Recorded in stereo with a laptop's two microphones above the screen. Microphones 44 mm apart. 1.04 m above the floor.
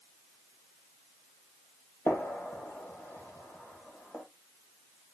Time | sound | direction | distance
2.1 | a gunshot | 70° left (ahead or behind) | 1.7 m